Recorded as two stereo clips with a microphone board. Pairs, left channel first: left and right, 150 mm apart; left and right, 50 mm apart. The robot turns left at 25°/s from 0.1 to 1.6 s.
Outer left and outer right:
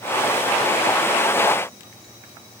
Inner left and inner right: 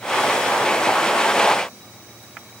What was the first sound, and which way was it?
Only background noise.